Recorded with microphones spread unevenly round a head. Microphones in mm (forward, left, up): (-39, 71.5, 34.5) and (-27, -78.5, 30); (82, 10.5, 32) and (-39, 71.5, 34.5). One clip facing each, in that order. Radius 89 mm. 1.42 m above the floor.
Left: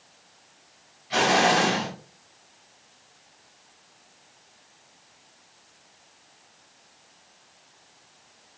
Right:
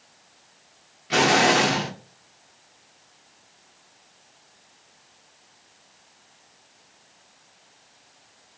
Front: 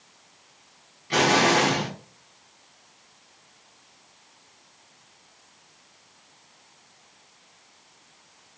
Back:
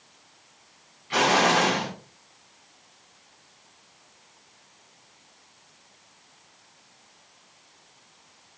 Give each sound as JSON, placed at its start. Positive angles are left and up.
{"t": 1.1, "sound": "an explosion", "azimuth_deg": -80, "distance_m": 0.7}